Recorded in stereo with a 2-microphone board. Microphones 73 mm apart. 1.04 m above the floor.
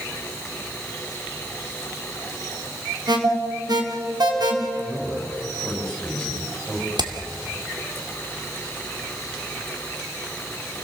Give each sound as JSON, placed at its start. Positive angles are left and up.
{"t": 3.1, "sound": "an alarm", "side_deg": -70, "distance_m": 3.5}
{"t": 4.8, "sound": "a man speaking", "side_deg": 5, "distance_m": 6.5}
{"t": 7.0, "sound": "hammering", "side_deg": -80, "distance_m": 2.0}